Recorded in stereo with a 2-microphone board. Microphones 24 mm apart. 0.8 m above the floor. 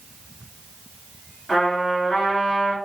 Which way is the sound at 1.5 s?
25° left (ahead or behind).